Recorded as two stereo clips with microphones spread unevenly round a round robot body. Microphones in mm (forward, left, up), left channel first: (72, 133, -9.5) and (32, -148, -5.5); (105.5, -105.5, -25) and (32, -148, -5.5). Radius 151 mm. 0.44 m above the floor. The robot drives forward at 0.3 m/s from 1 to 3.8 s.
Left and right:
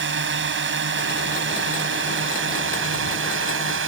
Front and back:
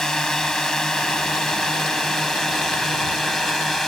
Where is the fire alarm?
No fire alarm in this recording.